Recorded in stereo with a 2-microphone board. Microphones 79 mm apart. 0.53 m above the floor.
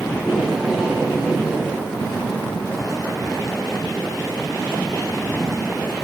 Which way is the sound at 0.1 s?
5° right (ahead or behind).